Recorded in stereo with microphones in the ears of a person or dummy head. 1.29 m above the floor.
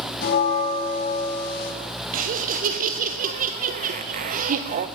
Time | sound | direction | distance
0.2 | a bell | 55° left (ahead or behind) | 1.3 m
2.1 | laughter | 40° right (ahead or behind) | 0.6 m